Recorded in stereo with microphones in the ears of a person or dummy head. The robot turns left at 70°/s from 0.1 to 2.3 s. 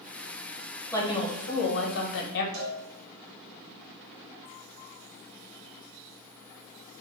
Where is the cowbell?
80° right, 1.8 m.